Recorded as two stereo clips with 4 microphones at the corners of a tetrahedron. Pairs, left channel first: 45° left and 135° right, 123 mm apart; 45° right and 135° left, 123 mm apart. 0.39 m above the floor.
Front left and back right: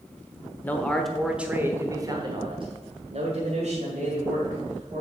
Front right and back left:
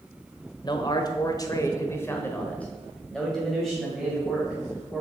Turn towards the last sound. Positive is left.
turn(degrees=-140)